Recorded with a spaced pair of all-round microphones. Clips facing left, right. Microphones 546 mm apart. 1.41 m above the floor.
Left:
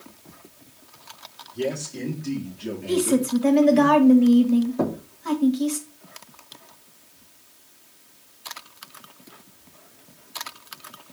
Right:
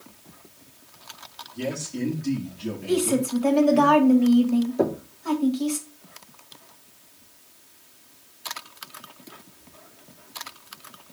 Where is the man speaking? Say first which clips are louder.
Left 1 dB; 30° right (ahead or behind), 4.5 m; by 3.9 s 10° right (ahead or behind), 3 m.